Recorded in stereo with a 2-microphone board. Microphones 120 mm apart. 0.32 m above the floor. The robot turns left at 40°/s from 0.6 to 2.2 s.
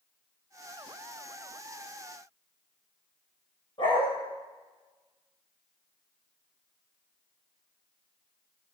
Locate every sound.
3.8 s a dog barking: 40° left (ahead or behind), 6.5 m